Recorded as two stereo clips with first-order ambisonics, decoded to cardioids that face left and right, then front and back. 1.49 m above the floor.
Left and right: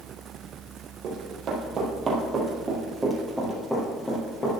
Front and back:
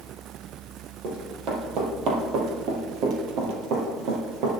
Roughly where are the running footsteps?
Behind right.